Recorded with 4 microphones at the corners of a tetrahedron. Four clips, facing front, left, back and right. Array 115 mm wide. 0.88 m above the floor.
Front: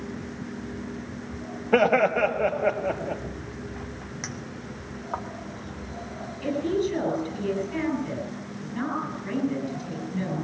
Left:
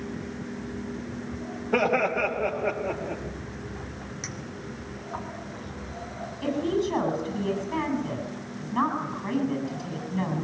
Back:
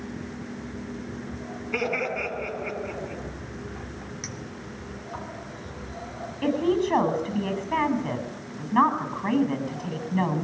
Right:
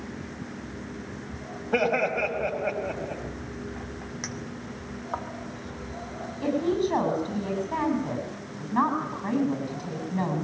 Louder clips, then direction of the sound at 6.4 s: Right 1 dB, back 2 dB; 160° right.